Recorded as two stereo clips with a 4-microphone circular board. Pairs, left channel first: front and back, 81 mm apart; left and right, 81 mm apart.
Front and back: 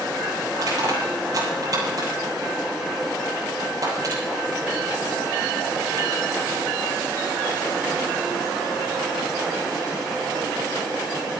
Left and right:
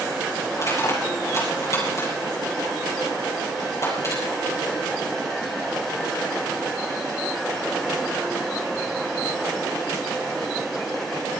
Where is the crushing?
140° left, 7.5 m.